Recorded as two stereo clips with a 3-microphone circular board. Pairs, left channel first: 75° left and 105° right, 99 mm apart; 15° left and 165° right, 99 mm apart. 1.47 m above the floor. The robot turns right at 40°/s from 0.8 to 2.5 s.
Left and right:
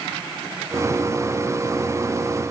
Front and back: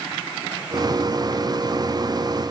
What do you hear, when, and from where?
Only background noise.